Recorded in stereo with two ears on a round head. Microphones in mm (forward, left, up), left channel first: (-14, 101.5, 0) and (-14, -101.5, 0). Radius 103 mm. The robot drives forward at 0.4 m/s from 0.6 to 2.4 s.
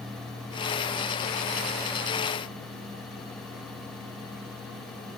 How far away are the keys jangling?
I don't hear keys jangling.